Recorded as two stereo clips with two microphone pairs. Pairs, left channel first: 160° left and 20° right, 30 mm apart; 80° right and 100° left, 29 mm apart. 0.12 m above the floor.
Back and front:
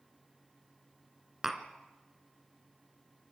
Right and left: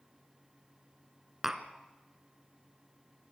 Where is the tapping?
40° left, 1.8 m.